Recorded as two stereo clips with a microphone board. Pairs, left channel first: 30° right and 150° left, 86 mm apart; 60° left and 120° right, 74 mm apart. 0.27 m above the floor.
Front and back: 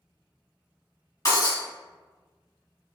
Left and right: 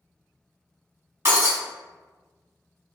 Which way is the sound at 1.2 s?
70° right.